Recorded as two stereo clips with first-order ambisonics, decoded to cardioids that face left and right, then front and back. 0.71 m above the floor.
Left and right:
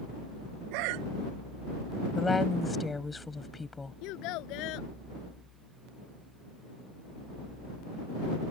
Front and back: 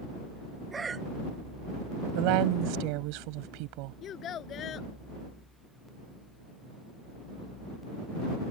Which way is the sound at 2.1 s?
170° left.